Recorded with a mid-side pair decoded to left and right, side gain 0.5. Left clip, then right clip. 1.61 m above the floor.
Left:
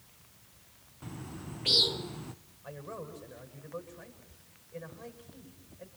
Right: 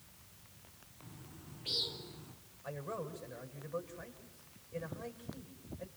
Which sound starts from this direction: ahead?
A man speaking, at 2.6 s.